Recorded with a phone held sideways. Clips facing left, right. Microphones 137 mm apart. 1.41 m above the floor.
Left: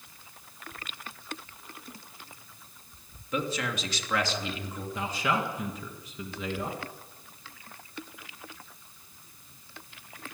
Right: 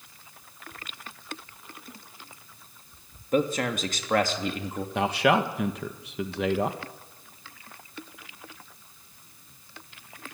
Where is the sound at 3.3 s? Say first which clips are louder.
Right 7 dB; 55° right (ahead or behind), 3 m.